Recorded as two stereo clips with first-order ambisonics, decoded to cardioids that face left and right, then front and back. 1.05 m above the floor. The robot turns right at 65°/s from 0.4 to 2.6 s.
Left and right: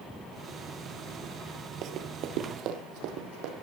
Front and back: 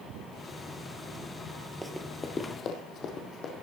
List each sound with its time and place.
1.8 s running footsteps: 100° right, 1.4 m; by 3.5 s 60° right, 3 m